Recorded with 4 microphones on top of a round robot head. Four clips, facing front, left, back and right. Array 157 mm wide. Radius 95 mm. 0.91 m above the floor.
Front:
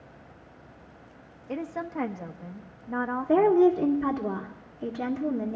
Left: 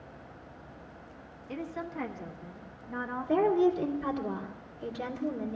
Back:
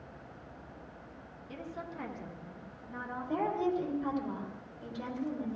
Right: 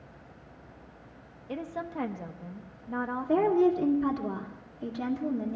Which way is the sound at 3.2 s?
25° right.